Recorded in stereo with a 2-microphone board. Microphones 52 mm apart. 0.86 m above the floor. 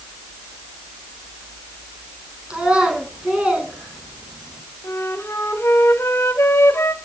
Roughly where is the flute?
Left.